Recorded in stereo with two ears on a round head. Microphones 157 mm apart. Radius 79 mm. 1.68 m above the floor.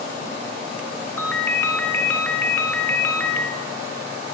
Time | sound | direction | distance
1.2 | a ringtone | 10° left (ahead or behind) | 5 m